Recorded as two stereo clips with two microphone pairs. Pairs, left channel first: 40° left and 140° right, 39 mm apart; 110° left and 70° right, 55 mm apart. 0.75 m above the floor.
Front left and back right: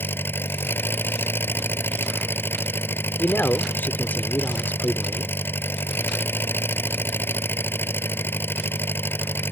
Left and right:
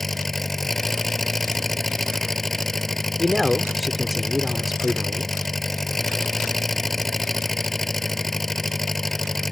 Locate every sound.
0.0 s an engine running: 20° left
3.2 s a man speaking: 15° left